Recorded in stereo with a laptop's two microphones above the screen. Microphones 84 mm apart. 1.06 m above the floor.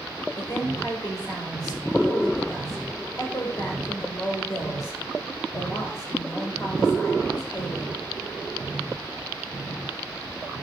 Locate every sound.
0.4 s a woman speaking: 45° left (ahead or behind), 4.5 m